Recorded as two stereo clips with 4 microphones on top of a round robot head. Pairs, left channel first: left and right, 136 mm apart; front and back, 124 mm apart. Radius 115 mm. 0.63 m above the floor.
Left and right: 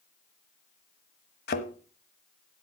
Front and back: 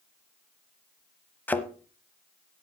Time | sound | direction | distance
1.5 | a thud | 75° left | 1.0 m